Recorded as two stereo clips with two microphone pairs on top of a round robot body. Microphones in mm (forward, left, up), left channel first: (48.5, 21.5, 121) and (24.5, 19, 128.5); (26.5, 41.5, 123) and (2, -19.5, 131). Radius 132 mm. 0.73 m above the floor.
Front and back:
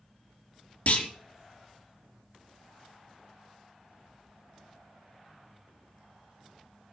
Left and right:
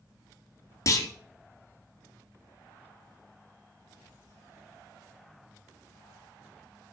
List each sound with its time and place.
0.9 s a clunk: 30° left, 1.6 m